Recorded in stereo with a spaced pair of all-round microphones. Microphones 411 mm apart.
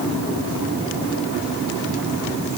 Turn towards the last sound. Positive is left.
No sound to turn to.